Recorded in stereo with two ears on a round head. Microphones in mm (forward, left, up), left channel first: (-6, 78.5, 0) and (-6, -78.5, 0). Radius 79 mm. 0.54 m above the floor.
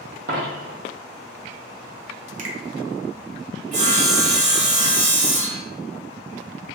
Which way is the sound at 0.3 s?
50° right (ahead or behind).